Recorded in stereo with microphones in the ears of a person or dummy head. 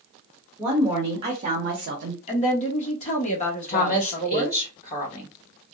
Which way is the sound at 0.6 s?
10° right (ahead or behind).